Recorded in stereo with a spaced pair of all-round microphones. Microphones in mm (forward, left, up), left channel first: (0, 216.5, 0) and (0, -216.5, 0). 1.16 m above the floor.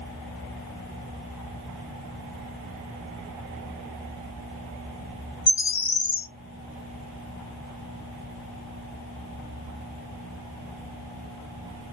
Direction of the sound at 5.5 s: 75° left (ahead or behind).